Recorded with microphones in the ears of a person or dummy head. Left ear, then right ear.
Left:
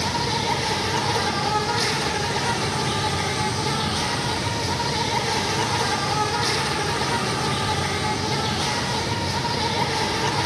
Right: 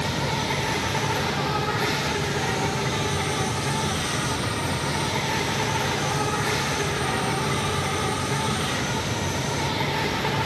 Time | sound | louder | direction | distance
0.0 | an insect | left 3 dB | 50° left (ahead or behind) | 4 m